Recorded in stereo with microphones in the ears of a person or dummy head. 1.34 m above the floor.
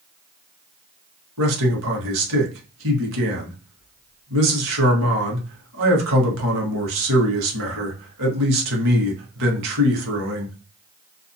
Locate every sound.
1.4 s a man speaking: 80° right, 1.1 m